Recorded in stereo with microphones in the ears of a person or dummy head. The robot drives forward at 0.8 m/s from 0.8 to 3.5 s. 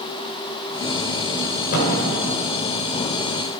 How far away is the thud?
About 2 m.